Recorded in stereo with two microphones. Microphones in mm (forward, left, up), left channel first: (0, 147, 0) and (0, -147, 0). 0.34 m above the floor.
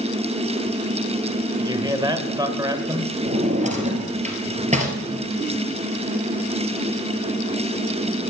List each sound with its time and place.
1.6 s a man speaking: 15° right (ahead or behind), 1.2 m
3.2 s a drawer: 25° right (ahead or behind), 2 m